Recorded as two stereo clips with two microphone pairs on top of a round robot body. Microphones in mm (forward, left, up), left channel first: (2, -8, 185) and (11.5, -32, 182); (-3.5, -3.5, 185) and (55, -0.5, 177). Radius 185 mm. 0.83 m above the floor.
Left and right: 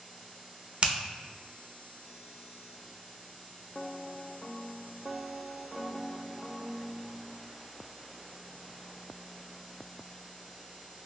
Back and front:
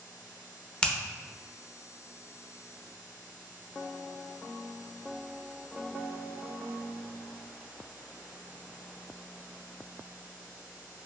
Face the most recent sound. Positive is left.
turn(degrees=-95)